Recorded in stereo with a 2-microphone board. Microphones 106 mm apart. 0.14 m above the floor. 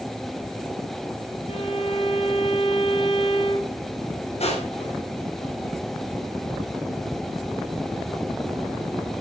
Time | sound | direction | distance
1.5 | a violin | 75° left (ahead or behind) | 4 m
4.4 | crushing | 85° left | 9.5 m